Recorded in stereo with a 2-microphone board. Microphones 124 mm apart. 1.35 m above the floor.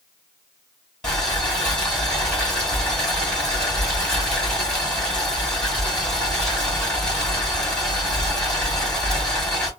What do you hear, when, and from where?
1.0 s boiling: 5° left (ahead or behind), 2.5 m